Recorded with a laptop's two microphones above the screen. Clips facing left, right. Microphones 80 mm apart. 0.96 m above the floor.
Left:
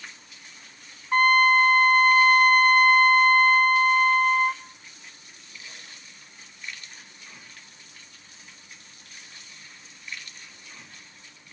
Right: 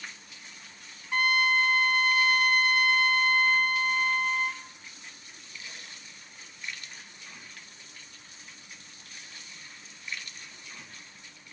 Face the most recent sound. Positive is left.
turn(degrees=45)  # may be behind; listen again after turning